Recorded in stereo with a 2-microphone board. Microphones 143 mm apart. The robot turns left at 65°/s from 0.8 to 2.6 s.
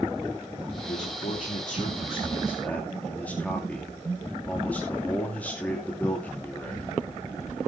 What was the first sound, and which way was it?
A man speaking, 125° left.